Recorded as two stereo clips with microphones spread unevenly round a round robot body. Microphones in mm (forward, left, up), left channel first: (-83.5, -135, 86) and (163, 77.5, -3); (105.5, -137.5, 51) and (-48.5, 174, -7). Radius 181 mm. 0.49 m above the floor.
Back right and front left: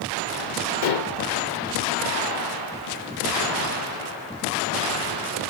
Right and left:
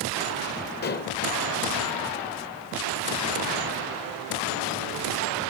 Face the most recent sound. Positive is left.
turn(degrees=-130)